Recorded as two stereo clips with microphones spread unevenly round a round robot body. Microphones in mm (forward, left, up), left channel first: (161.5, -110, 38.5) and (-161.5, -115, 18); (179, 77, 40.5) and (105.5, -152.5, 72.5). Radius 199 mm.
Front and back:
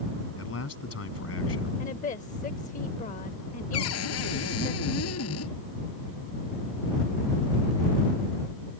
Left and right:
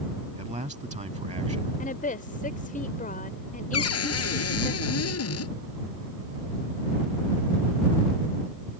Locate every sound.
0.4 s a man speaking: 45° right
1.8 s a woman speaking: 60° left
3.7 s a cupboard door: 60° left